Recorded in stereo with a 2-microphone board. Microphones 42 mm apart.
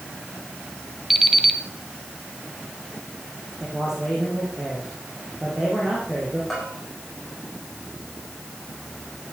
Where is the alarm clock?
5° right (ahead or behind), 1.7 m.